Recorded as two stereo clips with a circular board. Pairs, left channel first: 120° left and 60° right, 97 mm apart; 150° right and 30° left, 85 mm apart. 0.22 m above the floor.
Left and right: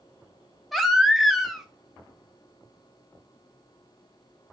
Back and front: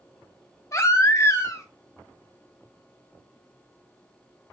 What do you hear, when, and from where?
0.7 s a baby crying: 150° right, 0.6 m